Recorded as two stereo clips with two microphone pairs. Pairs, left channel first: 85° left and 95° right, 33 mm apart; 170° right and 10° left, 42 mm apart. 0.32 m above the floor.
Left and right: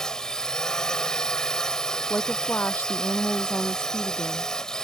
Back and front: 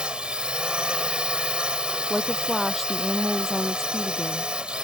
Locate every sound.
0.0 s a drone: 45° left
2.1 s a woman speaking: 100° left